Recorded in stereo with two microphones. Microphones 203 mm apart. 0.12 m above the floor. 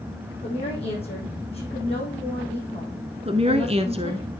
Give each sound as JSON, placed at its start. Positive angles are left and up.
{"t": 0.4, "sound": "a woman speaking", "side_deg": 30, "distance_m": 6.0}
{"t": 3.2, "sound": "a woman speaking", "side_deg": -30, "distance_m": 1.2}